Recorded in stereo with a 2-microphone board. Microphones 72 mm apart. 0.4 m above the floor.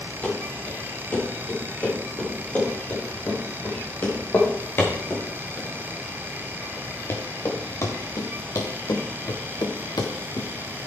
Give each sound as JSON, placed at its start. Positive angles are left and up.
{"t": 0.2, "sound": "running footsteps", "side_deg": 20, "distance_m": 7.5}